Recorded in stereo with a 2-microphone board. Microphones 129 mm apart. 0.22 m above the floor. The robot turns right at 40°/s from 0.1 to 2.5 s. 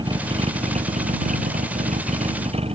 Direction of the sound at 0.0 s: 145° right.